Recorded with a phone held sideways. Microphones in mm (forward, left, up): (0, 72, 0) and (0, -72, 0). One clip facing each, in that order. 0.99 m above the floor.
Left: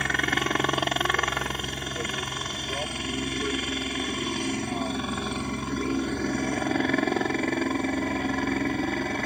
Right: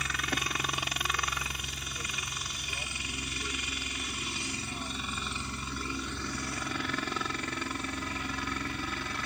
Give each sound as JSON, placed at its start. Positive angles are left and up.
{"t": 0.0, "sound": "a helicopter", "side_deg": 65}